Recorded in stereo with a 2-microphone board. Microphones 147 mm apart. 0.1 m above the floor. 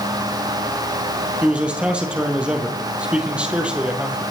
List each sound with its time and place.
1.4 s a man speaking: 5° right (ahead or behind), 2.5 m